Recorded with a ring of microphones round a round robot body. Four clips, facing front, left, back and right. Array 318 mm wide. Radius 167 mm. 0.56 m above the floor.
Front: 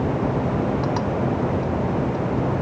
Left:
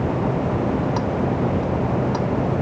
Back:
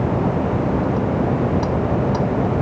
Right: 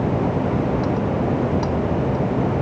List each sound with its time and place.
Only background noise.